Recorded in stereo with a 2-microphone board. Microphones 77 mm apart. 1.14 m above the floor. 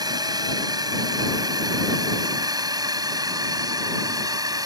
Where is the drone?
60° right (ahead or behind); by 4.7 s 55° right (ahead or behind).